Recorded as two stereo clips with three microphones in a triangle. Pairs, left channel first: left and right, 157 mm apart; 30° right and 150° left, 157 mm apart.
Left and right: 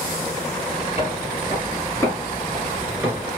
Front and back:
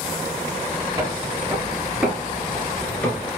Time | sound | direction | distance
1.0 | footsteps | 90° left | 1.7 m